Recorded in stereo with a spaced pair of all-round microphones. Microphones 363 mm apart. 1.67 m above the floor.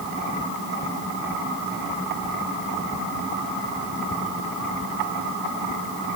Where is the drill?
I don't hear a drill.